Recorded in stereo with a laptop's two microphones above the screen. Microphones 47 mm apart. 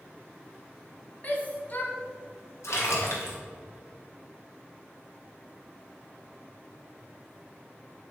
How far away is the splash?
About 2.5 m.